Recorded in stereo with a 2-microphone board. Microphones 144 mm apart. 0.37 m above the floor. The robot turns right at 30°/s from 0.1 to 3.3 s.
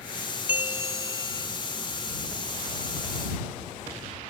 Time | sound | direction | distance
0.5 | a bell | 10° right (ahead or behind) | ?